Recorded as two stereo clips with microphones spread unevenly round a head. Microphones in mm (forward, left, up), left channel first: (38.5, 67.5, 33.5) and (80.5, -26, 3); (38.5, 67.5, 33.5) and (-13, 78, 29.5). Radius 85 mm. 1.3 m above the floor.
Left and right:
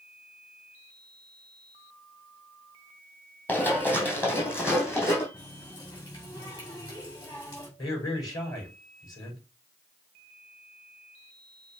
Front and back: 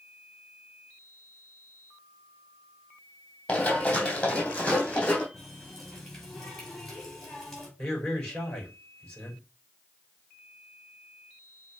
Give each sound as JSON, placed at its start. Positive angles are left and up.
{"t": 3.5, "sound": "running footsteps", "azimuth_deg": 50, "distance_m": 3.0}
{"t": 5.3, "sound": "a running tap", "azimuth_deg": 70, "distance_m": 5.0}
{"t": 7.8, "sound": "a man speaking", "azimuth_deg": 60, "distance_m": 6.5}